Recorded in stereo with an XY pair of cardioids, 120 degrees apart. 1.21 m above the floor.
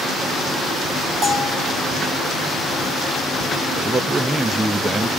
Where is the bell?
55° right, 8 m.